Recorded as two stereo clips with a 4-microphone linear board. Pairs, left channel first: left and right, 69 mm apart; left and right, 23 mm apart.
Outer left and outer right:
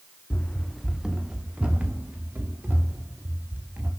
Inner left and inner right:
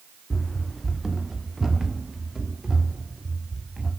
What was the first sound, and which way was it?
Running footsteps, 30° left (ahead or behind).